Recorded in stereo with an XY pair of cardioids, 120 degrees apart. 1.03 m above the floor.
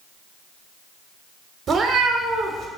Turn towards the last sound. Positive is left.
turn(degrees=-45)